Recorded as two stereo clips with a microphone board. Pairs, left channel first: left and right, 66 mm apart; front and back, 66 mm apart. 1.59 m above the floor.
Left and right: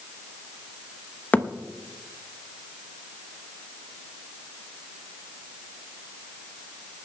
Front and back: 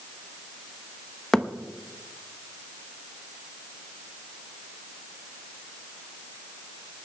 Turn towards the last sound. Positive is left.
turn(degrees=70)